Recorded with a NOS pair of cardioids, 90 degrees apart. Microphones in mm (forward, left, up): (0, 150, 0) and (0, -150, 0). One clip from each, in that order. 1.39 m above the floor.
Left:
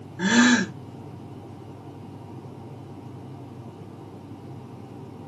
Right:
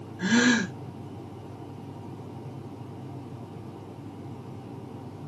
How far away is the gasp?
About 1.3 m.